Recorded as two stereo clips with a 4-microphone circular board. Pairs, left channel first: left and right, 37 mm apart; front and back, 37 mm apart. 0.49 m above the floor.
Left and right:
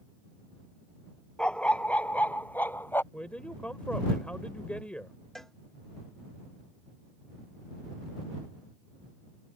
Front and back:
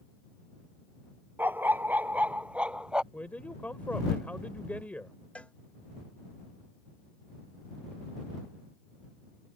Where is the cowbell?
20° left.